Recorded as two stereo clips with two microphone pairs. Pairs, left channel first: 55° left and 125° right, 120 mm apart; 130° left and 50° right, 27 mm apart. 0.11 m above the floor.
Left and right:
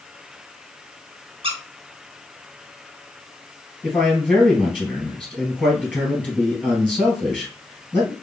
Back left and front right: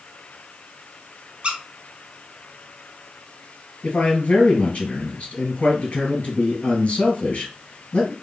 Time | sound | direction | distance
1.4 | a squeak | 95° right | 1.1 m
3.8 | a man speaking | 130° left | 2 m